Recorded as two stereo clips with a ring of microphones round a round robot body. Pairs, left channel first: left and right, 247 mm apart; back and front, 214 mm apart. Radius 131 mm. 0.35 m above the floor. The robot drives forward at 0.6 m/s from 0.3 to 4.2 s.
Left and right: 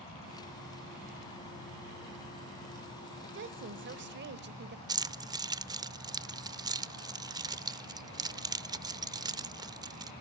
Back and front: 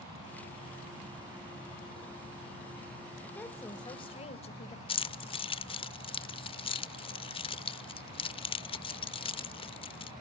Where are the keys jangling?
145° right, 0.8 m.